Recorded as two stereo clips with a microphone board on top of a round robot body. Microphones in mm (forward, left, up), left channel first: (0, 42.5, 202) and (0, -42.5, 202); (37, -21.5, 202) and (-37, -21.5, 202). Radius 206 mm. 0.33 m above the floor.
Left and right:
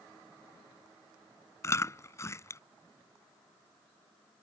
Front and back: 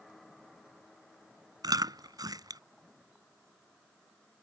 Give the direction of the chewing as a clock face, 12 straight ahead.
7 o'clock.